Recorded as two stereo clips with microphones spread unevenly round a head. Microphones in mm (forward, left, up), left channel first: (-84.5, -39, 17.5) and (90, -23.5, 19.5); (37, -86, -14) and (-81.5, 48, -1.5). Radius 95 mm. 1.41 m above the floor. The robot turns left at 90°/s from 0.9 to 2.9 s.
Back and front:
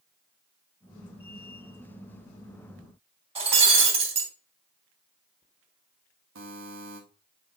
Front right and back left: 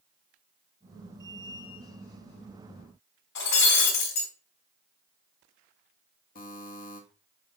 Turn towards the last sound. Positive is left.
turn(degrees=0)